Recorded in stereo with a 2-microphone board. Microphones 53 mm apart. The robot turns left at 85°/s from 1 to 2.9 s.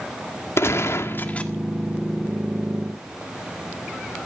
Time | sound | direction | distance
0.6 | a gunshot | 55° left | 1.7 m